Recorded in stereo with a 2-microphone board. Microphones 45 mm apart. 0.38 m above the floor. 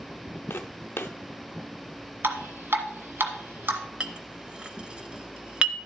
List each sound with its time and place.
0.5 s footsteps: 60° left (ahead or behind), 0.7 m
2.2 s dripping: 60° right (ahead or behind), 1.4 m
4.0 s a clink: 20° right (ahead or behind), 0.8 m